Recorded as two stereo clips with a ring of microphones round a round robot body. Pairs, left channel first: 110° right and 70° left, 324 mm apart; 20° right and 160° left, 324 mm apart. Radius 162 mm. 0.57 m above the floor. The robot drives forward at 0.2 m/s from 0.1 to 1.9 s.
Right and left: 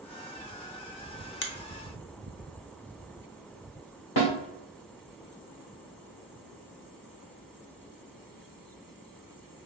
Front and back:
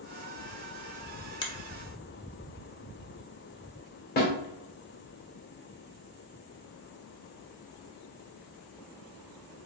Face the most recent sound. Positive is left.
turn(degrees=-85)